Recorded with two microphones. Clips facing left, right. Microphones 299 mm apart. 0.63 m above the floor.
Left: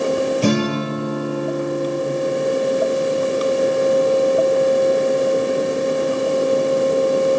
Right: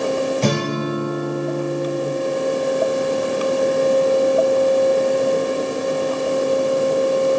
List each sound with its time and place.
0.4 s a guitar: 10° left (ahead or behind), 3.5 m